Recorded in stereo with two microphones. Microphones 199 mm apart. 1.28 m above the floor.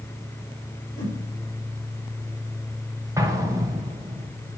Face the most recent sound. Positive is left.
turn(degrees=-15)  # may be behind; listen again after turning